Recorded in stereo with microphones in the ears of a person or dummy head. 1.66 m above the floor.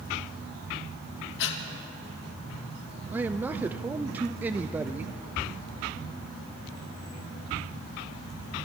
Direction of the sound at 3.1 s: 10° right (ahead or behind).